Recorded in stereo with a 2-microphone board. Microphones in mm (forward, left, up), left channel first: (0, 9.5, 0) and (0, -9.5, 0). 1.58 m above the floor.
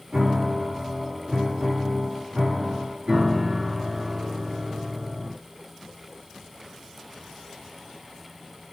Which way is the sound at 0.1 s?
80° right.